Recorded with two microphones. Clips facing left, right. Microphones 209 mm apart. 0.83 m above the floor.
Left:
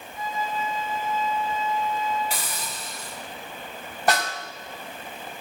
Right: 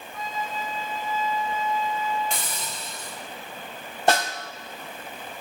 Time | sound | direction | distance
0.1 | a flute | 30° left (ahead or behind) | 4 m
2.3 | a hiss | 5° left (ahead or behind) | 7.5 m
4.1 | a snare drum | 25° right (ahead or behind) | 4 m